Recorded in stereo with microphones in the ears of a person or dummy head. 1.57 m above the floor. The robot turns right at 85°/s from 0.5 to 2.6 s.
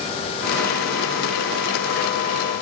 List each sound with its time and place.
Only background noise.